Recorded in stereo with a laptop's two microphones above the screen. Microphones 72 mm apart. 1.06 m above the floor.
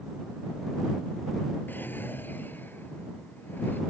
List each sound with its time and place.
1.7 s a drawer: 25° left (ahead or behind)